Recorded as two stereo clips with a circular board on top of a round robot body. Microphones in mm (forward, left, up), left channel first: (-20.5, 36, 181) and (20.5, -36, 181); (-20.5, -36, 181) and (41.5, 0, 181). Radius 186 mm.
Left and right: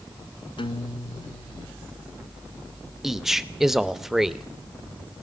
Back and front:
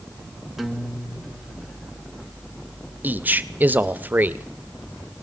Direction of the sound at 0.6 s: 115° left.